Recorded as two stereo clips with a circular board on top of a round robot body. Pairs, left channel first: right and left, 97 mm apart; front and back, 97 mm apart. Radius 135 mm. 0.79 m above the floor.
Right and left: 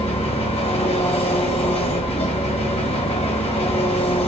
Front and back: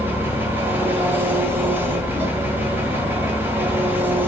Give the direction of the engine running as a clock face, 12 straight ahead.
4 o'clock.